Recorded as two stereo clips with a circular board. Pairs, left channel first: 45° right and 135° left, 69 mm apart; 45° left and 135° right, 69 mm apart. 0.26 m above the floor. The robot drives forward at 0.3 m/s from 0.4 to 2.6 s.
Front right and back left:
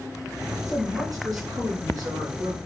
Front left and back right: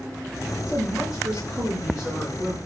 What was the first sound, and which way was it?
A man speaking, 155° left.